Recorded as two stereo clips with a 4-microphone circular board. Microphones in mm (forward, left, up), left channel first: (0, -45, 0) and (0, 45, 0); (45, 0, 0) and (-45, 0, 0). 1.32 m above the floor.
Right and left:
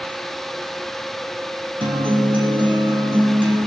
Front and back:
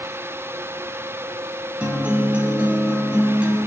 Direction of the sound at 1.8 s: 100° left.